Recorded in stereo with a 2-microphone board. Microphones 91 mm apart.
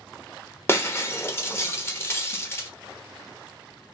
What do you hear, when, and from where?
0.7 s breaking glass: 25° left (ahead or behind), 1.0 m